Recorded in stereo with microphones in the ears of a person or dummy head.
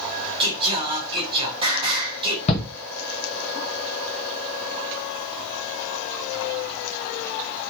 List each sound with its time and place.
0.4 s singing: 30° right (ahead or behind), 3.5 m
2.5 s a shout: 40° left (ahead or behind), 0.9 m